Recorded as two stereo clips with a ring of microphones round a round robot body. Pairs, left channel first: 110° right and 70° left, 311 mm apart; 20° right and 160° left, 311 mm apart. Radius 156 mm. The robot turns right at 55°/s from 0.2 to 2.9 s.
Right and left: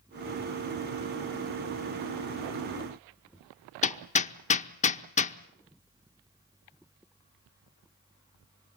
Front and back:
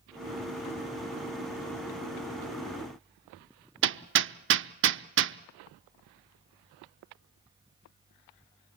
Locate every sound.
3.8 s hammering: 170° right, 0.8 m